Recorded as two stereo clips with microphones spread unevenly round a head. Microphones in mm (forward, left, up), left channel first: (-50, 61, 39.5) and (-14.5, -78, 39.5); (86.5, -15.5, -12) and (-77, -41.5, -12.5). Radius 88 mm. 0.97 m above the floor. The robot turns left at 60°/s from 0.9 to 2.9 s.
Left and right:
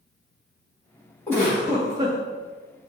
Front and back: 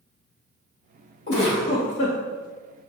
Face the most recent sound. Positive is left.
turn(degrees=-65)